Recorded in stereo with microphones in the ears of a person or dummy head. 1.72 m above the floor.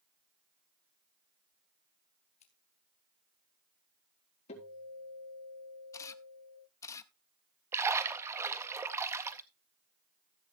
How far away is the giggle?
I don't hear a giggle.